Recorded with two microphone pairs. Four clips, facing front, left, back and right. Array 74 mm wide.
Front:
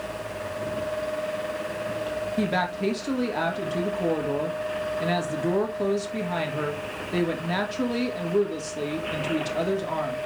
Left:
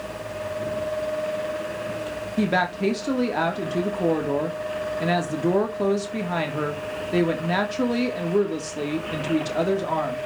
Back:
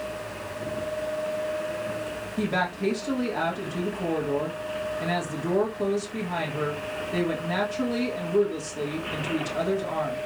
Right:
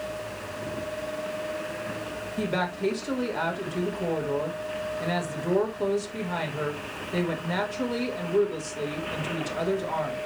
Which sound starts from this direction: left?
A woman speaking, at 2.4 s.